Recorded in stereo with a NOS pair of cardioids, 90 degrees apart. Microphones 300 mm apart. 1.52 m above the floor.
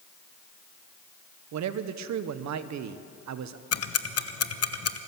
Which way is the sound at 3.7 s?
55° left.